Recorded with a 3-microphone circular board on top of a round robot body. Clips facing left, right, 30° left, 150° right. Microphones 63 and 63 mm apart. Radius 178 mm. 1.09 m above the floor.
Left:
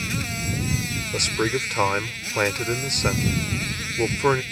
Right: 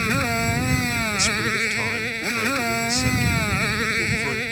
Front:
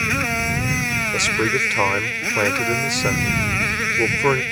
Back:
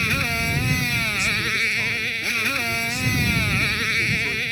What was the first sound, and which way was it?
A motorcycle, 40° right.